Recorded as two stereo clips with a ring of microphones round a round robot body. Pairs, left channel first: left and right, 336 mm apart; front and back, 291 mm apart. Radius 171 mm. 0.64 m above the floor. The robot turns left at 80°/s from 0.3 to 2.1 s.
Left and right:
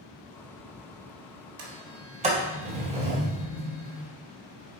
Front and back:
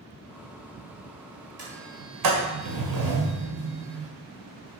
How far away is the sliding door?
About 2.0 m.